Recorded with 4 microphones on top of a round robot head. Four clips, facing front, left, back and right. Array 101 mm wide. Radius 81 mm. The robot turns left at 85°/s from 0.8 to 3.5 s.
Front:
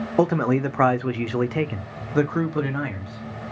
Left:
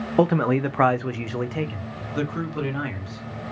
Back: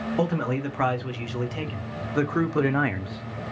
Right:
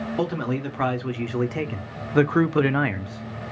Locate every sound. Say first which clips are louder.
0.2 s a man speaking: left 8 dB, front 7 dB; 50° left, 0.6 m; by 3.4 s 175° right, 0.6 m